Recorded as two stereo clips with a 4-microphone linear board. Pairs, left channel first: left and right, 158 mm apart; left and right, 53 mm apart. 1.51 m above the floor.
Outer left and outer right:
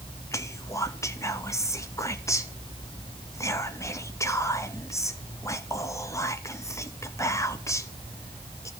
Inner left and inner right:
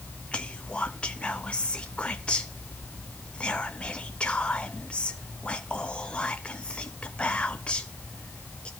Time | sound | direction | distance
0.3 | whispering | 20° left (ahead or behind) | 0.7 m